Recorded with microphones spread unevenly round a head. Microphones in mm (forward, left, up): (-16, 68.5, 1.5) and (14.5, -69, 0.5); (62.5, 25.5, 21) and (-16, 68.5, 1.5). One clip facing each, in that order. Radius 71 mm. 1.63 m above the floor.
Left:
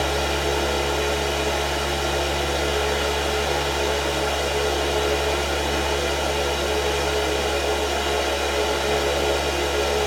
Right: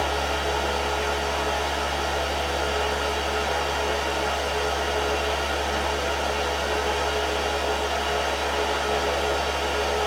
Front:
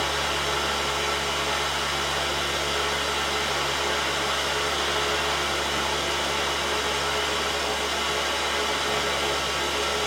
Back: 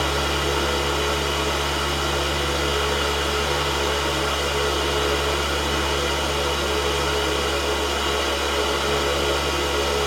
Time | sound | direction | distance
0.0 | a fan | 150° left | 0.7 m